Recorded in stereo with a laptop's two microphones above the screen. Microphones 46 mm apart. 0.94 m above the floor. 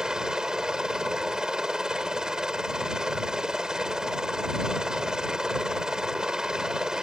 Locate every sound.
0.0 s a helicopter: 15° right (ahead or behind)